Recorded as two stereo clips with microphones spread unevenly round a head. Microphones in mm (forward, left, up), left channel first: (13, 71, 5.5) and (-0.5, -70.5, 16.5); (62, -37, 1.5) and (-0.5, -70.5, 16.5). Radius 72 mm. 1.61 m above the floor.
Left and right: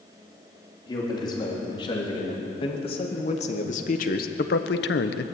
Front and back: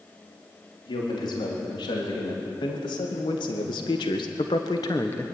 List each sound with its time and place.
0.9 s a man speaking: 20° left, 4.5 m; by 5.2 s 105° left, 1.3 m